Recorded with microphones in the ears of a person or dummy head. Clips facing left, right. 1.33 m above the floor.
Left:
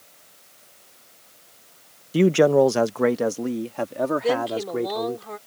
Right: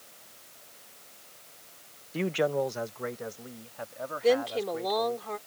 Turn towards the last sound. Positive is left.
turn(degrees=5)  # may be behind; listen again after turning